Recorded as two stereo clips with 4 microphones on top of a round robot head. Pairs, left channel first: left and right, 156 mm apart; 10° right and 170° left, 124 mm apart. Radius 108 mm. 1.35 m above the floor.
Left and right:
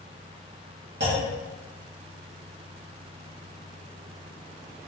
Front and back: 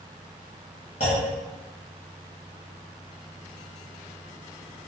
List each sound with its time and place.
1.0 s a clunk: 60° right, 1.2 m